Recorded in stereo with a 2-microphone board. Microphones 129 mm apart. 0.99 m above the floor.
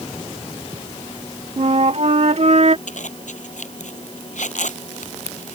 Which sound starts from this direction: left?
A zipper, at 2.9 s.